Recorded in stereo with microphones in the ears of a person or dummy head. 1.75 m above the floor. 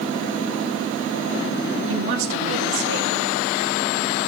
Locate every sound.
1.9 s a woman speaking: 65° right (ahead or behind), 1.4 m